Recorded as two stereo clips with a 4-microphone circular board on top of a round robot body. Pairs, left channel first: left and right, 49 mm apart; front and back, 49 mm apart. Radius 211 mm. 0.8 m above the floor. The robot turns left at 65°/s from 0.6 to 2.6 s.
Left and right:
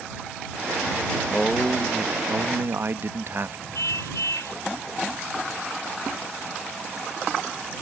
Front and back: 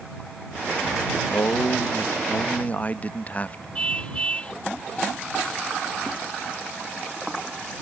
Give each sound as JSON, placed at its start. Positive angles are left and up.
{"t": 1.3, "sound": "a man speaking", "azimuth_deg": 30}
{"t": 3.8, "sound": "a car horn", "azimuth_deg": 70}